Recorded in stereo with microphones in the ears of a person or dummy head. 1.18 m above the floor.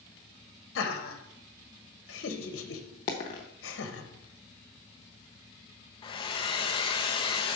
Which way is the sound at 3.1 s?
20° left (ahead or behind).